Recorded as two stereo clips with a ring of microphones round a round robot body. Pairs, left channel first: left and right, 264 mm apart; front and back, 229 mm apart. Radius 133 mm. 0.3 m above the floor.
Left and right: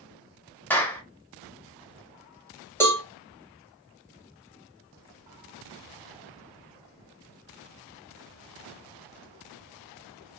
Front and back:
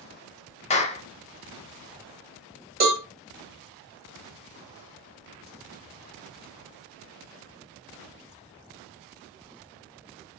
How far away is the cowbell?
About 1.4 m.